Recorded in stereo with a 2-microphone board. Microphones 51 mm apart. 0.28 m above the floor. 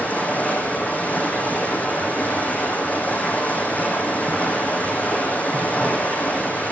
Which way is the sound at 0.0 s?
30° left (ahead or behind).